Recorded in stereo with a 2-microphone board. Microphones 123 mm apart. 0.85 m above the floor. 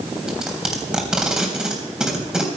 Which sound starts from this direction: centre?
Tape being pulled, at 0.3 s.